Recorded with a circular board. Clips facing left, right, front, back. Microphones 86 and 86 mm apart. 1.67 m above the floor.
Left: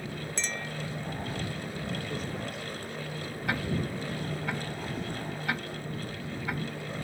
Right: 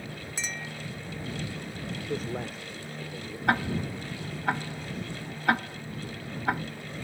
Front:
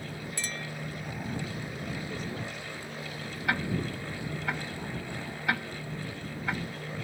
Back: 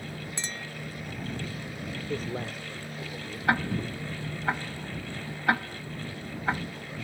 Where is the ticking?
125° right.